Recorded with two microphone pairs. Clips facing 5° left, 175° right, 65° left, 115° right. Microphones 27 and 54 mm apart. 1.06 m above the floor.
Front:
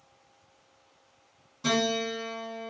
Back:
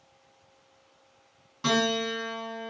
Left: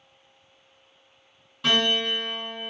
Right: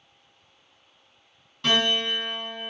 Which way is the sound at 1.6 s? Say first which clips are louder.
Back 1 dB, even; 145° left.